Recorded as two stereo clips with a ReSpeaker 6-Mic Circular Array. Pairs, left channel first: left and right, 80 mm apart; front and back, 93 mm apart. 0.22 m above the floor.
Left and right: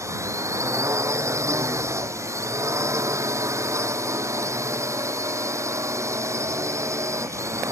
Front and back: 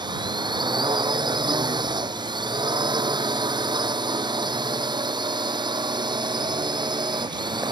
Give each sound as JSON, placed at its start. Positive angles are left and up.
{"t": 0.0, "sound": "a drone", "azimuth_deg": -140}